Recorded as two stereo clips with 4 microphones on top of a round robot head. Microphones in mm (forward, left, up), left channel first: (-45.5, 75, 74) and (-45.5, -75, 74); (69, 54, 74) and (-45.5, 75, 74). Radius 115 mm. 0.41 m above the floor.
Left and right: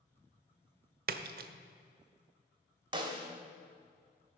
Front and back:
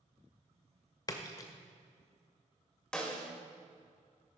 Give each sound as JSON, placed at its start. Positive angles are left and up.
{"t": 1.1, "sound": "a splash", "azimuth_deg": -70, "distance_m": 0.5}
{"t": 2.9, "sound": "a snare drum", "azimuth_deg": -85, "distance_m": 1.3}